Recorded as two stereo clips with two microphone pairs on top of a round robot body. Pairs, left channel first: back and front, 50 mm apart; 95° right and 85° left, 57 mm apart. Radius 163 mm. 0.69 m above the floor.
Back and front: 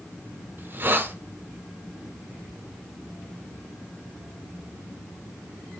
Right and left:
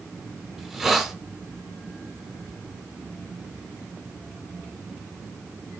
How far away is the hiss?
About 0.7 m.